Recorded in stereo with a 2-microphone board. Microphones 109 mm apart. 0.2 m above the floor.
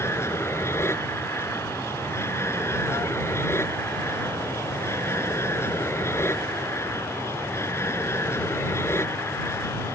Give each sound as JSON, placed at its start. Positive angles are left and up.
{"t": 0.0, "sound": "an aircraft", "side_deg": 25}